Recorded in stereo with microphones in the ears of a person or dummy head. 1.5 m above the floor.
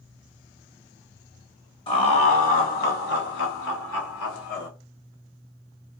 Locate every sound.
1.9 s laughter: 30° left (ahead or behind), 1.2 m; by 4.7 s 80° left, 1.4 m